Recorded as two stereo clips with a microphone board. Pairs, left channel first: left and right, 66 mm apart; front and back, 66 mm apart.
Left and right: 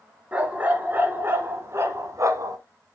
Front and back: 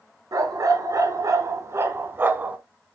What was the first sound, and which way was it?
A dog barking, 155° right.